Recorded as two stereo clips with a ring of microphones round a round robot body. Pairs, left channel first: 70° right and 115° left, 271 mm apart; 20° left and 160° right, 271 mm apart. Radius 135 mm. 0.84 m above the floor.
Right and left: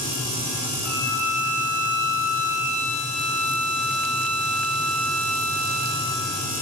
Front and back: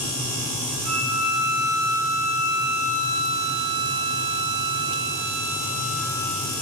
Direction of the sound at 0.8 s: 95° right.